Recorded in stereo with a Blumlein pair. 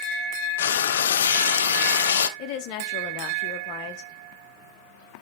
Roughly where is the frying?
Ahead left.